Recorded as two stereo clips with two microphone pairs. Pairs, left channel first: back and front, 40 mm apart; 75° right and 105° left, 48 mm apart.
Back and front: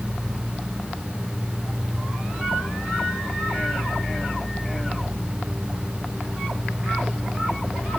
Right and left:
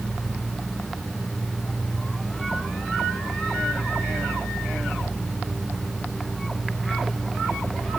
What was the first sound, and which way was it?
Only background noise.